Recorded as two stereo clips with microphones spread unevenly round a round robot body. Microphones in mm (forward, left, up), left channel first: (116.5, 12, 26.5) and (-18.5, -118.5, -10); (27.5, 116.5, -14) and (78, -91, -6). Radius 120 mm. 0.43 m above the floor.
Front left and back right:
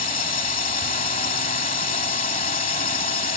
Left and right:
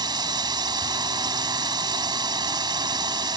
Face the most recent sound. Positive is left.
turn(degrees=-5)